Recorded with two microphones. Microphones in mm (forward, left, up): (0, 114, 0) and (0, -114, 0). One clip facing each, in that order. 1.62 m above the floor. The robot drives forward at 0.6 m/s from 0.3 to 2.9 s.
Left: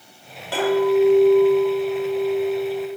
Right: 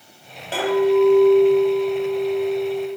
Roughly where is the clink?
Centre.